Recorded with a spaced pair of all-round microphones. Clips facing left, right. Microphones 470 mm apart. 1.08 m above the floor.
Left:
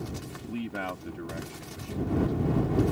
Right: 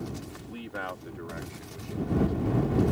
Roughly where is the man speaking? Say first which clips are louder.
Left 7 dB; left.